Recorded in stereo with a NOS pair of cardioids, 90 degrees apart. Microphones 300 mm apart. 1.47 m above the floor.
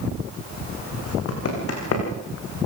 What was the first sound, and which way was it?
Running footsteps, 50° left.